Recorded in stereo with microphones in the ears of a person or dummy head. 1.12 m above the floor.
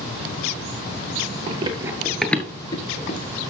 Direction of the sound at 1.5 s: 40° right (ahead or behind).